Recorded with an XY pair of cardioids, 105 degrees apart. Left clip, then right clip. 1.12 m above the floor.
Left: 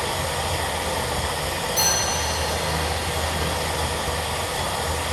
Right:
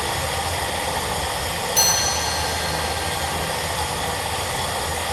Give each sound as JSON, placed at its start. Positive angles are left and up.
{"t": 0.0, "sound": "running water", "azimuth_deg": -65, "distance_m": 3.0}
{"t": 1.8, "sound": "a chime", "azimuth_deg": -60, "distance_m": 3.0}